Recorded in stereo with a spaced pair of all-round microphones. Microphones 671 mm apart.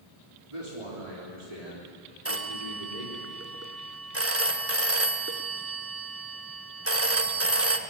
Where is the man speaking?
50° right (ahead or behind), 3.5 m; by 3.2 s 80° right, 4.5 m.